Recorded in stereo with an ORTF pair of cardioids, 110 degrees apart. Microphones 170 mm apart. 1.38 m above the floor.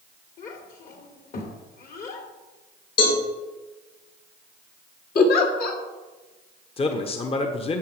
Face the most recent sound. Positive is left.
turn(degrees=35)